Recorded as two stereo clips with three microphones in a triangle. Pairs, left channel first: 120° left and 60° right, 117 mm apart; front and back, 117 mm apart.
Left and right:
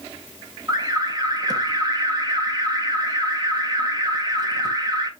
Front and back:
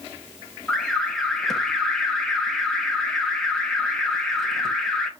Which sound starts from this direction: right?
An alarm, at 0.7 s.